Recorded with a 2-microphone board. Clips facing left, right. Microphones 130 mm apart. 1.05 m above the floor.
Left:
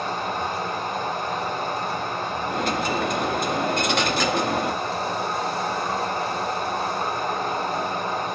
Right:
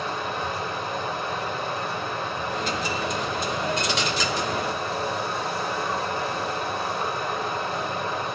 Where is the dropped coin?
55° left (ahead or behind), 0.6 m.